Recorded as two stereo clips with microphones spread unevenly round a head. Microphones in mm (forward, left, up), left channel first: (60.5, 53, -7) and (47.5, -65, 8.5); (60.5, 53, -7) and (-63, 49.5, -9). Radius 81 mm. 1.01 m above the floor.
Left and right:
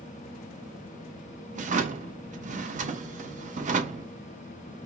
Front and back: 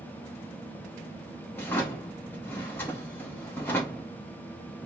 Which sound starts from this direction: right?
A drawer, at 1.6 s.